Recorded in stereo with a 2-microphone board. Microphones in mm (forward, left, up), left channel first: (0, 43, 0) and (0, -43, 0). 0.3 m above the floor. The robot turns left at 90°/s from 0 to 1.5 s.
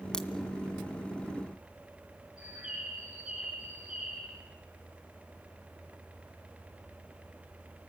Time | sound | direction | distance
0.1 | a crack | 10° left (ahead or behind) | 1.5 m
2.4 | a bird | 10° right (ahead or behind) | 5.5 m